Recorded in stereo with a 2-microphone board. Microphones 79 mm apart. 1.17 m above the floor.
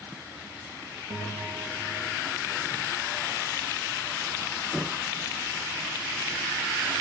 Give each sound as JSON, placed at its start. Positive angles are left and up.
{"t": 1.1, "sound": "a bell", "side_deg": -75, "distance_m": 5.0}